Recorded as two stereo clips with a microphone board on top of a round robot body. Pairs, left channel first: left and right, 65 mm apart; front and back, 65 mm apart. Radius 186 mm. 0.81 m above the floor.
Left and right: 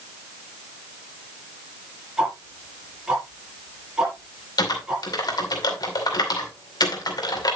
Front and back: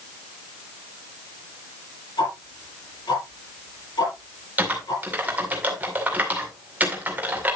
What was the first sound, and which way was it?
Ticking, 10° right.